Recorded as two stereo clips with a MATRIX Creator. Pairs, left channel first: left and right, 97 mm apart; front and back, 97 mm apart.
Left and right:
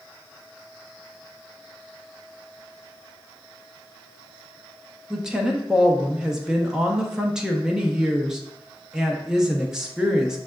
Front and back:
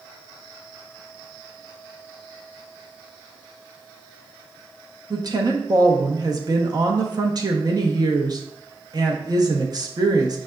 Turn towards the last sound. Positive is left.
turn(degrees=-170)